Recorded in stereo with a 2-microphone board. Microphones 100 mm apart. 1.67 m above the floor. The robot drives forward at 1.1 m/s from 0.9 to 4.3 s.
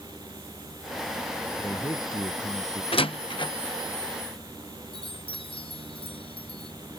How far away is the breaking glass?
No breaking glass in this recording.